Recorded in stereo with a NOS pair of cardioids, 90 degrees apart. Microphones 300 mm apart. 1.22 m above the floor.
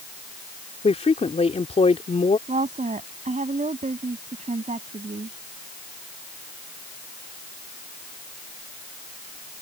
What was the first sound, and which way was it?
A woman speaking, 20° left.